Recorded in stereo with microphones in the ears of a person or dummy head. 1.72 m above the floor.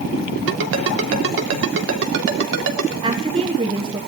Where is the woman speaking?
30° right (ahead or behind), 1.5 m.